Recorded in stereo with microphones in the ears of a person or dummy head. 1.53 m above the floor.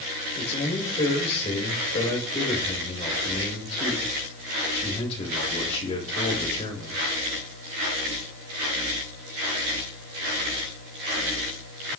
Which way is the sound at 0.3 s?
30° left (ahead or behind).